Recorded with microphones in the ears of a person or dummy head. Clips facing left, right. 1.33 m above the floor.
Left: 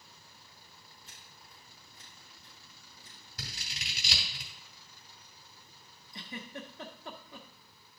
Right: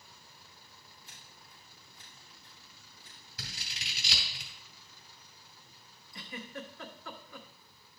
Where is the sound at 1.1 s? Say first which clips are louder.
Even; 55° left (ahead or behind), 6 m.